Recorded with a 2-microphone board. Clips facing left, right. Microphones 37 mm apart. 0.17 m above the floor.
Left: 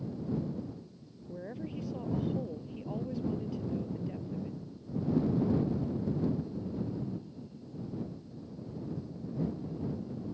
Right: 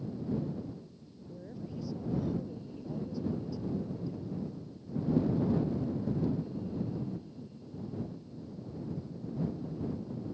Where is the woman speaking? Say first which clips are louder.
Left 3 dB; 50° left (ahead or behind).